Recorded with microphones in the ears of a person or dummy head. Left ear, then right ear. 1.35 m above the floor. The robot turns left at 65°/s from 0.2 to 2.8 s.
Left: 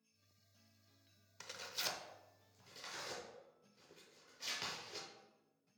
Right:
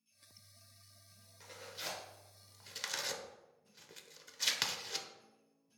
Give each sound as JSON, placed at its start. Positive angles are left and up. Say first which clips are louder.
{"t": 1.4, "sound": "tearing paper", "louder": "left 2 dB", "side_deg": 45, "distance_m": 0.6}